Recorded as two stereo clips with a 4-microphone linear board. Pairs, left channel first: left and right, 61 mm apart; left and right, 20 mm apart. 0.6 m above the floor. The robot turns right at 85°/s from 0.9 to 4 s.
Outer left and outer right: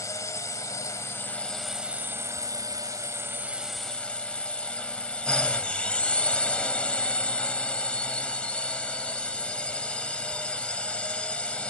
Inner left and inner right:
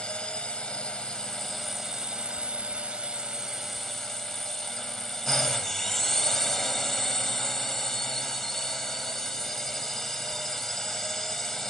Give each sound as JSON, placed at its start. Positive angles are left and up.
{"t": 0.0, "sound": "a drone", "azimuth_deg": 115}